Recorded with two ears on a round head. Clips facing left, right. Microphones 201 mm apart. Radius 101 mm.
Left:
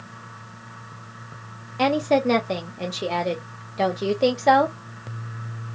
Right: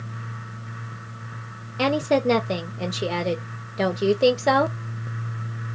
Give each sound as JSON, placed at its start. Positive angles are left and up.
{"t": 1.8, "sound": "a woman speaking", "side_deg": -5, "distance_m": 0.8}